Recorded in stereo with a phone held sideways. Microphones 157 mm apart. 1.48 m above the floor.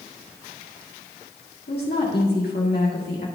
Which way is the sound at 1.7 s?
70° left (ahead or behind).